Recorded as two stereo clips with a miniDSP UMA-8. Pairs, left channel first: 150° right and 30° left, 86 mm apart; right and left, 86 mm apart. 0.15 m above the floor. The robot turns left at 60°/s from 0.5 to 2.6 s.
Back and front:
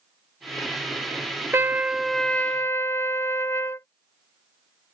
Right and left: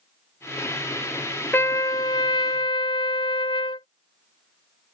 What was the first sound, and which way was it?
A trumpet, 30° right.